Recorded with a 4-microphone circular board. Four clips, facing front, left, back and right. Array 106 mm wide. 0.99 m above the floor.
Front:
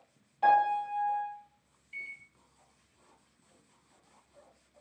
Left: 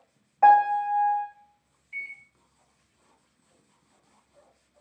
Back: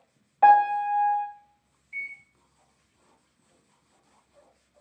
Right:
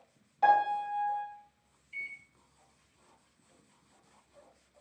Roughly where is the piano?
Behind left.